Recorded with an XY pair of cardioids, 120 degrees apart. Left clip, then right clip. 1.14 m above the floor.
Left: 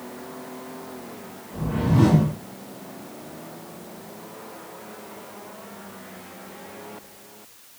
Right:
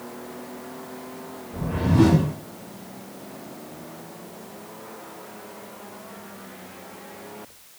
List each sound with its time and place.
1.5 s a whoosh: 15° right, 1.1 m